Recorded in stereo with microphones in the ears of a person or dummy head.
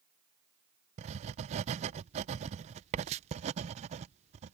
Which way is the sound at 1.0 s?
35° right (ahead or behind).